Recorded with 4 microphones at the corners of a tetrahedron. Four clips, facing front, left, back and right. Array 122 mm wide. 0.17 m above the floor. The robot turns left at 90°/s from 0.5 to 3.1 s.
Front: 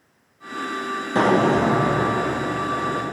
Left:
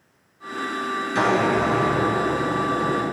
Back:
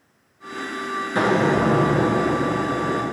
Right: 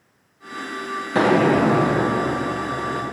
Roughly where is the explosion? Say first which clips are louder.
Right 4 dB, front 2 dB; ahead right.